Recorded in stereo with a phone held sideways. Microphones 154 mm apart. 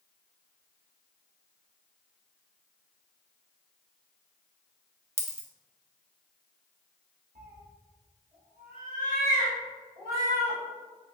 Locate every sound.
5.2 s a dropped coin: 45° right (ahead or behind), 0.7 m
7.3 s a cat meowing: 85° right, 1.9 m